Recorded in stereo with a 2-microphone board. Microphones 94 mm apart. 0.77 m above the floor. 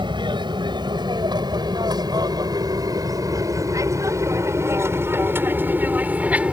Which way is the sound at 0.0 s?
55° right (ahead or behind).